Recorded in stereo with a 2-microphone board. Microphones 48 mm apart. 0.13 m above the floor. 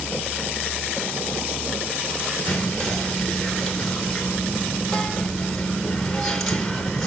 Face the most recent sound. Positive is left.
turn(degrees=5)  # may be behind; listen again after turning